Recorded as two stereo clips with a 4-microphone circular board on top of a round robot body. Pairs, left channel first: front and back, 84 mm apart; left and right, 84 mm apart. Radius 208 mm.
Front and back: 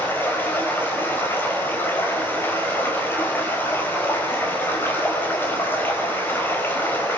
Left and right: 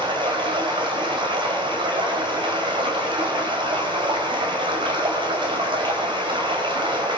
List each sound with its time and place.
0.0 s running water: 65° right, 5 m